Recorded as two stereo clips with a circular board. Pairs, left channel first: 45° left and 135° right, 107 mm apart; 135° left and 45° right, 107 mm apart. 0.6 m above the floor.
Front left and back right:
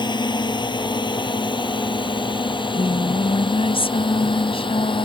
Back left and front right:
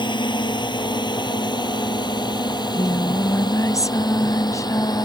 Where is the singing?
75° left.